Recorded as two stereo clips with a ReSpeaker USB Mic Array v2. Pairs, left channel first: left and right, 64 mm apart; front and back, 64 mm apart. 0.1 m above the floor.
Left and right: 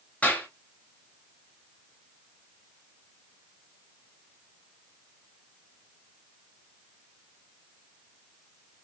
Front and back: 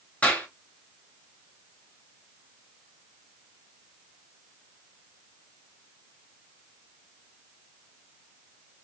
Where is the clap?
45° left, 1.0 m.